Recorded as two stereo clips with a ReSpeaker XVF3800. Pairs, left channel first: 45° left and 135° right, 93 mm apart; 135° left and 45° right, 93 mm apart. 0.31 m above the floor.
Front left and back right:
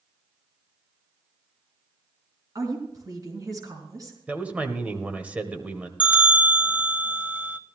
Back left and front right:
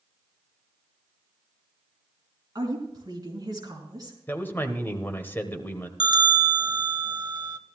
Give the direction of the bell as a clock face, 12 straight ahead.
2 o'clock.